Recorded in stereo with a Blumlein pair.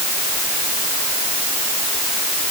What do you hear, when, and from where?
Only background noise.